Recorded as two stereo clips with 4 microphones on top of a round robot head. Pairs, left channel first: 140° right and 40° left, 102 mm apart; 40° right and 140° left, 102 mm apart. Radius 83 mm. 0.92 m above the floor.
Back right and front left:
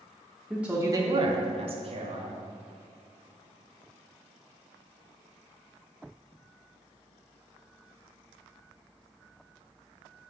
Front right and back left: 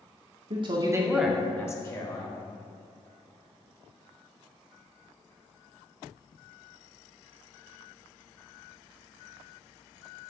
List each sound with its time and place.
0.5 s a man speaking: 125° left, 1.0 m; by 2.3 s 10° left, 1.9 m